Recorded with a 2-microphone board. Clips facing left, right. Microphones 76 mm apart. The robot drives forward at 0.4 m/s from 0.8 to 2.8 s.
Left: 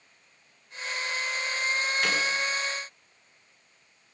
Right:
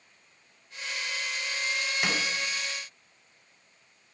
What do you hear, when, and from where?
2.0 s a snare drum: 15° right (ahead or behind), 3.5 m